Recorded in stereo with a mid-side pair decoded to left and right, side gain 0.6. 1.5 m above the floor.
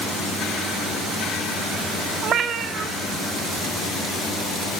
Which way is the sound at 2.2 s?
50° right.